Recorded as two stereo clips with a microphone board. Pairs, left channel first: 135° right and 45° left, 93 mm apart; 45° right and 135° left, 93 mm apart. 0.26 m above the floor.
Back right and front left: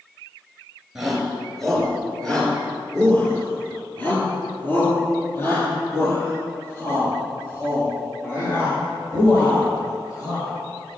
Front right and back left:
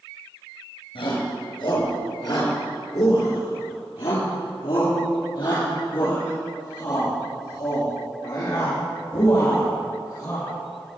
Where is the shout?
40° right, 4 m; by 10.5 s 85° right, 10.5 m.